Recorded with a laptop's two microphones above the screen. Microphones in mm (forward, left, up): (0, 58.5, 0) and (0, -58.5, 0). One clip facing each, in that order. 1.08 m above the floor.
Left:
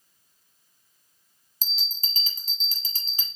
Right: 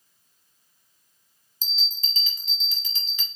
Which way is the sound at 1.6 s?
35° left (ahead or behind).